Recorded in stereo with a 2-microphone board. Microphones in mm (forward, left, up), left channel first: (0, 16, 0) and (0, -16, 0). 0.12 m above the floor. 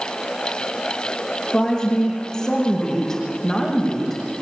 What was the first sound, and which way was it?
A woman speaking, 15° left (ahead or behind).